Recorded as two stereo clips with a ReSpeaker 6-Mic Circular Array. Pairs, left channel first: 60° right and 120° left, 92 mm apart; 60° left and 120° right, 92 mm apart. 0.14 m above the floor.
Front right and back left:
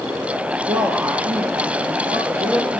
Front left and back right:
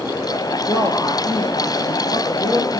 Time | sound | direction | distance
0.7 | a man speaking | 110° left | 3 m